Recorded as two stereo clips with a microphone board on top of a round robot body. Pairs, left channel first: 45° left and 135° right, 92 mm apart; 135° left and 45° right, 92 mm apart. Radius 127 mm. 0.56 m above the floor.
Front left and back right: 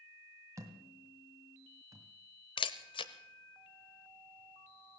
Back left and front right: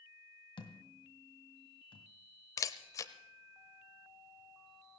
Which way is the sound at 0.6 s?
170° left.